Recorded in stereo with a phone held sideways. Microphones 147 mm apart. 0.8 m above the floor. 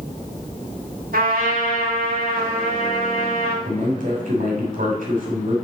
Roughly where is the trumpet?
Right.